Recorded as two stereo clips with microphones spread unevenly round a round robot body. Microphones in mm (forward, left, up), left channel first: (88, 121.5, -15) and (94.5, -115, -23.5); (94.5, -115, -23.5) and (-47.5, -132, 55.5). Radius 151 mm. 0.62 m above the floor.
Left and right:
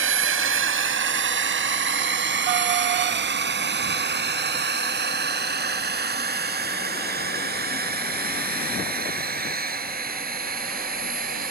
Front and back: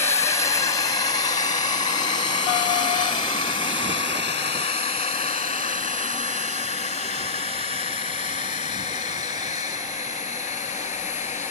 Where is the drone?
55° right; by 11.5 s 35° right.